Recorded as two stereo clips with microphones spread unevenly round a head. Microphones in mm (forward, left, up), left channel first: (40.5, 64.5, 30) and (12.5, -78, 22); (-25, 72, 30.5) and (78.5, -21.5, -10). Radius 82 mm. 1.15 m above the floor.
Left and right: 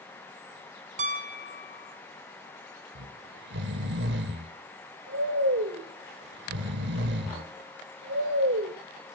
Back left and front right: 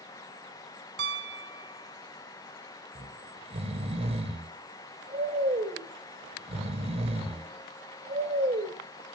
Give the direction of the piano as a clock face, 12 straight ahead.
2 o'clock.